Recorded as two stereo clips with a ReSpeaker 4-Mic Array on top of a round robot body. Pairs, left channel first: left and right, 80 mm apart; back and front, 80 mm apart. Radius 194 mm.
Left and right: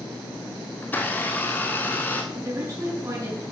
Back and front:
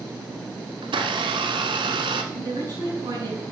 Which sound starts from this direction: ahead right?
A woman speaking, at 2.3 s.